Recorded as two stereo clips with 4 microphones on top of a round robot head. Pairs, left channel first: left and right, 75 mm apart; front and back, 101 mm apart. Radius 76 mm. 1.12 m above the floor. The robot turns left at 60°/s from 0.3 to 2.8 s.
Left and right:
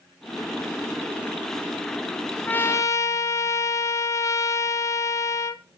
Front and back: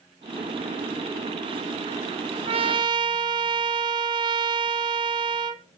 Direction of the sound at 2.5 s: 160° left.